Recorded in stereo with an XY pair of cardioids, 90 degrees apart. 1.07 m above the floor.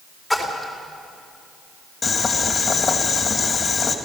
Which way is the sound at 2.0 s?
40° left.